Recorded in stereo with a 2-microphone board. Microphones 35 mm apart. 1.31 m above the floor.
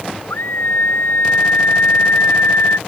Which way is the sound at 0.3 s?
75° left (ahead or behind).